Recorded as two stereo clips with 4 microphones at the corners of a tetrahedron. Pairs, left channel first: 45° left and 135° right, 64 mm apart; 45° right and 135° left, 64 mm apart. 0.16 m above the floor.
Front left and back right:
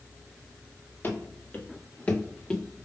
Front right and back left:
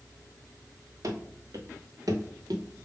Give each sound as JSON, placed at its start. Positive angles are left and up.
{"t": 1.0, "sound": "running footsteps", "azimuth_deg": 100, "distance_m": 1.6}